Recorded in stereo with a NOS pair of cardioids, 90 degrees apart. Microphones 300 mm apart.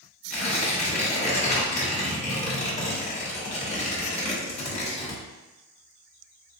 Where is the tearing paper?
20° left, 1.2 m.